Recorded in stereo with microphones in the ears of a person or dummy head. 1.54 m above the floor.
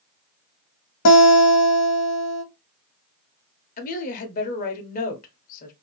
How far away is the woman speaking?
About 1.1 m.